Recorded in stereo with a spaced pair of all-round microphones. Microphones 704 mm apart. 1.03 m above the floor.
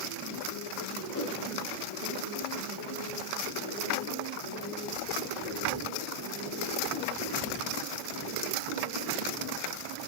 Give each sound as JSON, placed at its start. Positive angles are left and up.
{"t": 1.1, "sound": "a whoosh", "side_deg": 20, "distance_m": 5.0}